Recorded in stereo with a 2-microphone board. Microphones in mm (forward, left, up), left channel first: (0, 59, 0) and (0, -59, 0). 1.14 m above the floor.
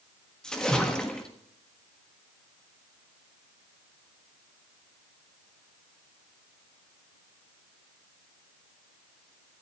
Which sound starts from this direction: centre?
A splash, at 0.4 s.